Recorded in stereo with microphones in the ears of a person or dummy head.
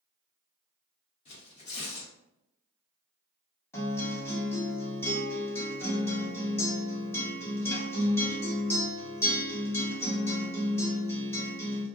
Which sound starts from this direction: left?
Tearing paper, at 1.2 s.